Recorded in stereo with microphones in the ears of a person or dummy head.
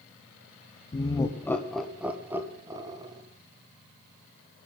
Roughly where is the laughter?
Left.